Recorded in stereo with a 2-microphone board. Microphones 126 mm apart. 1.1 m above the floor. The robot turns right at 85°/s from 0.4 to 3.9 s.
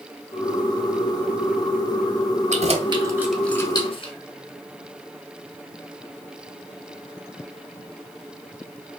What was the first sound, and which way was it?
Keys jangling, 75° right (ahead or behind).